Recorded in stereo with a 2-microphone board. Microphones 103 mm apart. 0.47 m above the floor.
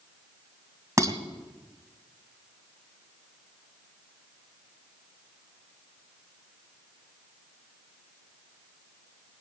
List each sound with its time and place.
1.0 s dishes clattering: 30° right (ahead or behind), 1.9 m